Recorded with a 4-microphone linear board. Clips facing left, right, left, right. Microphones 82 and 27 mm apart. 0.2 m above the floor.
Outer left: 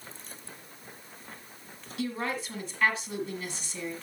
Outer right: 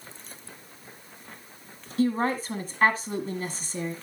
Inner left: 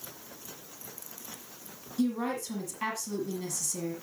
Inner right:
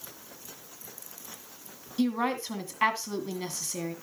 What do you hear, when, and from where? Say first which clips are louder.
2.0 s a woman speaking: outer right 8 dB, inner right 2 dB; 40° right (ahead or behind), 1.6 m